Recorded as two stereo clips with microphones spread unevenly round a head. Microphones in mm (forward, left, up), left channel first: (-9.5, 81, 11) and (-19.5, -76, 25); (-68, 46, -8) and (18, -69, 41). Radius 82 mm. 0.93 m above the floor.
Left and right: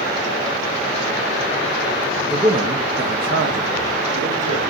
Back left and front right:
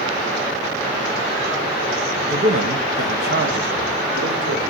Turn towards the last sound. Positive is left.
turn(degrees=-85)